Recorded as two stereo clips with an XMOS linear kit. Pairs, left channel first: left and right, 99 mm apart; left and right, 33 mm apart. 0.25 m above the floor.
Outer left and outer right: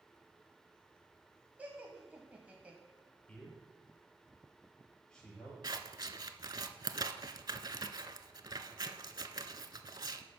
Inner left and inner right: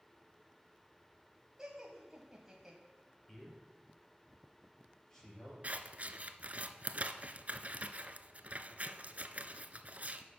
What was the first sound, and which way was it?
Laughter, 15° right (ahead or behind).